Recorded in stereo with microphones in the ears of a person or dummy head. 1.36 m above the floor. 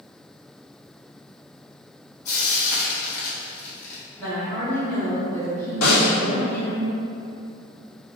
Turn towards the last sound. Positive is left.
turn(degrees=70)  # may be behind; listen again after turning